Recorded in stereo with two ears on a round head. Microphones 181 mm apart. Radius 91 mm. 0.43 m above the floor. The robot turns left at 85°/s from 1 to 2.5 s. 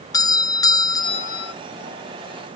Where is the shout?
I don't hear a shout.